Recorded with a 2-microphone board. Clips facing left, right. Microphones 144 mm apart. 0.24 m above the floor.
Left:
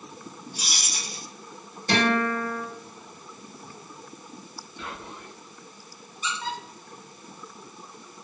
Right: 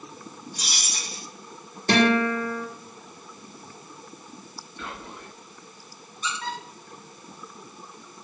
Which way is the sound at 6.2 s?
5° left (ahead or behind).